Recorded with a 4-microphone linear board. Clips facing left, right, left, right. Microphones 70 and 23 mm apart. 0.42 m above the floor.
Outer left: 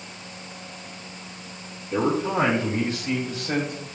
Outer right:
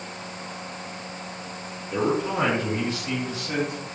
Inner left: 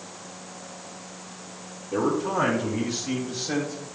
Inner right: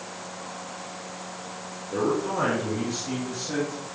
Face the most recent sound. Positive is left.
turn(degrees=50)  # may be behind; listen again after turning